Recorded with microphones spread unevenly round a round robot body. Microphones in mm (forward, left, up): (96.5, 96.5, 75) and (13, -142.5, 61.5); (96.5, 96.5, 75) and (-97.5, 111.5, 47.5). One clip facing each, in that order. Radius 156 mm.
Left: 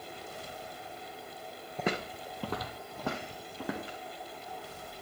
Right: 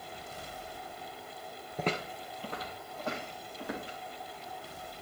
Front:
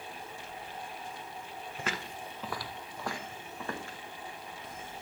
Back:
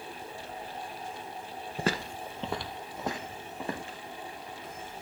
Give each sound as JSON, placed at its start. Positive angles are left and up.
{"t": 1.8, "sound": "footsteps", "azimuth_deg": 165, "distance_m": 0.5}